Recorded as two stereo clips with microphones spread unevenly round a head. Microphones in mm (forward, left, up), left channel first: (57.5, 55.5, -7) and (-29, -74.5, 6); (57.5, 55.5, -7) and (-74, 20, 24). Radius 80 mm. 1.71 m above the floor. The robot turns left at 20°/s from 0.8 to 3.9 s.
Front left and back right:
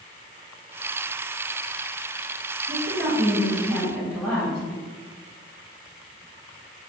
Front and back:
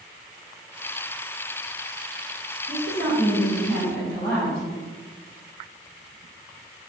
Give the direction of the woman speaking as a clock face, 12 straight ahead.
12 o'clock.